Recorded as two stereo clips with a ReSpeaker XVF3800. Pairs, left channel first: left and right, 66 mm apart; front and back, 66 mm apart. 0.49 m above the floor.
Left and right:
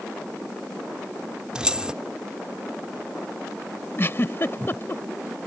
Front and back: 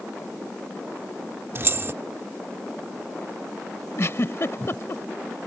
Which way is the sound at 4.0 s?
40° left.